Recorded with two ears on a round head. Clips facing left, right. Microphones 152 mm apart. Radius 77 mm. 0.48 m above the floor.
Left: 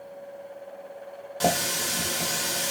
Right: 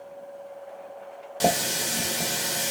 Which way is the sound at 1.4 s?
25° right (ahead or behind).